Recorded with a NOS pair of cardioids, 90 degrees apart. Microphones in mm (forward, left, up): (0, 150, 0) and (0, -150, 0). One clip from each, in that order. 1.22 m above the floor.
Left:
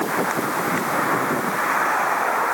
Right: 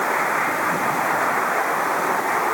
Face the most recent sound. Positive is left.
No sound to turn to.